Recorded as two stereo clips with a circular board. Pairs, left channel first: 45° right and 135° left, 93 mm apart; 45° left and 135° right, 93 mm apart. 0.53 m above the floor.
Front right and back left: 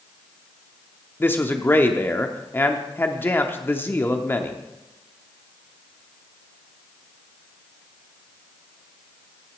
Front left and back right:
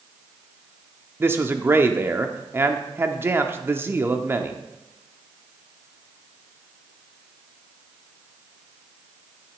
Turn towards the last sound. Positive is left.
turn(degrees=-90)